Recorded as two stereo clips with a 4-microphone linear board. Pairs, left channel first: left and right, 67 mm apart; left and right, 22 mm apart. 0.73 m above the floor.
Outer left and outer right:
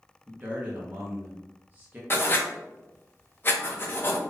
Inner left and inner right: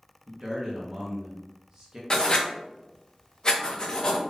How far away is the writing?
About 0.9 m.